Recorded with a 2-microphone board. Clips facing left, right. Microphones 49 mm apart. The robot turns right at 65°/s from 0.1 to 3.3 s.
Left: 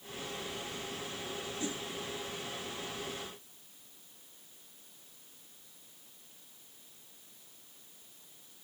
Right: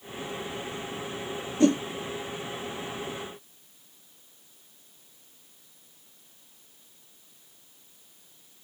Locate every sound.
1.6 s a whoosh: 75° right (ahead or behind); by 1.8 s 60° right (ahead or behind)